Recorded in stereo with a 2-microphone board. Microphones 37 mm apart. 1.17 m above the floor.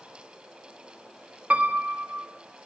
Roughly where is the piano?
Right.